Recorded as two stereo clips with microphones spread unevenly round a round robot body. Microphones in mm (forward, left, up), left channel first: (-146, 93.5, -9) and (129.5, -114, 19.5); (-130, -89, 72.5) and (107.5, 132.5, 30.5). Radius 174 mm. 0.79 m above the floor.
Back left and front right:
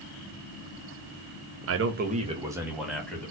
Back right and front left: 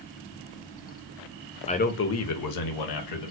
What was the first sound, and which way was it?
A man speaking, 65° right.